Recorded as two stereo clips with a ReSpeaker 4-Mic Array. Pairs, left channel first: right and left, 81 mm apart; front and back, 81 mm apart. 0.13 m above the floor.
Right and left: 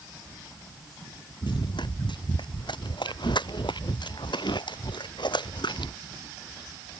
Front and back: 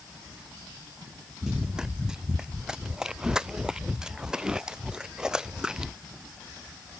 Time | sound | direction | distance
1.4 | running footsteps | 100° right | ?